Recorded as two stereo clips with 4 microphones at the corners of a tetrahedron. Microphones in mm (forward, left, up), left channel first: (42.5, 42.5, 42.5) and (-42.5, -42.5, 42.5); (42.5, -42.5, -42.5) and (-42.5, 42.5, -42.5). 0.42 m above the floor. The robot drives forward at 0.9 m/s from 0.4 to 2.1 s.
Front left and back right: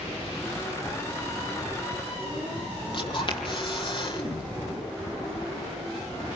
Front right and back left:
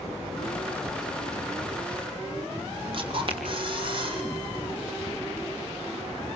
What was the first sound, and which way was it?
A camera shutter, 90° left.